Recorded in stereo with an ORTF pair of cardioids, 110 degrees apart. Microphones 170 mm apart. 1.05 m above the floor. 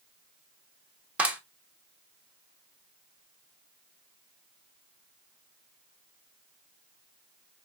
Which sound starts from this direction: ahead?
A clap, at 1.2 s.